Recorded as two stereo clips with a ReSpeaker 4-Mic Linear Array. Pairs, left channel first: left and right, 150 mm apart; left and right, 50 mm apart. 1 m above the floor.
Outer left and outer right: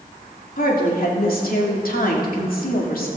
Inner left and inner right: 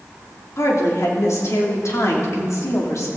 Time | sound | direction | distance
0.6 | a woman speaking | 75° left (ahead or behind) | 3 m